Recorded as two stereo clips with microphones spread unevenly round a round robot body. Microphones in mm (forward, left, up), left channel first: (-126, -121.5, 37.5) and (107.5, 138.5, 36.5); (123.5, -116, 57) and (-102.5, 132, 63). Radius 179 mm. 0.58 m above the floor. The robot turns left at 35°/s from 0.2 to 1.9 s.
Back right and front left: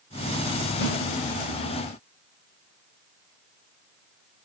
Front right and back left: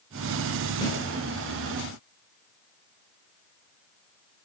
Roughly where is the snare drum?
Behind right.